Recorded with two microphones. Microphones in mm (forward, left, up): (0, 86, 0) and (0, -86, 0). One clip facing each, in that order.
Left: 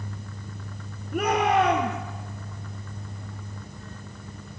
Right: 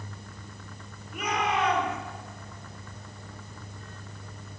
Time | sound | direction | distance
1.1 | a shout | 50° left (ahead or behind) | 3.5 m